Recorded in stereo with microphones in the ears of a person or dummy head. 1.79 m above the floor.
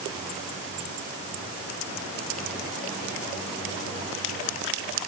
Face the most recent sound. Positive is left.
No sound to turn to.